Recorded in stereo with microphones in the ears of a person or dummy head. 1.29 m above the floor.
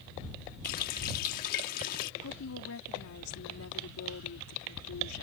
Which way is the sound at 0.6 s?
50° left (ahead or behind).